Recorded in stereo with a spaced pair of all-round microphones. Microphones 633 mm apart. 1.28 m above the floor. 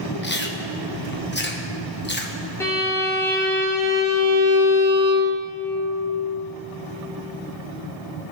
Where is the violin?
5° left (ahead or behind), 1.4 m.